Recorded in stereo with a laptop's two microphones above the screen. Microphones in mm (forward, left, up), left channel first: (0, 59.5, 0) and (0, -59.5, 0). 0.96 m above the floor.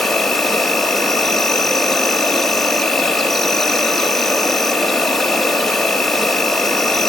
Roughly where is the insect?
Centre.